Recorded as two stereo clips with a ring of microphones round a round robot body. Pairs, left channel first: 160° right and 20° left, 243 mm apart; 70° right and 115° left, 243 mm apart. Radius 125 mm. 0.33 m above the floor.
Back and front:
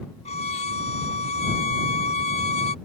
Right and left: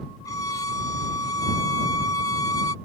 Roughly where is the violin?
Behind right.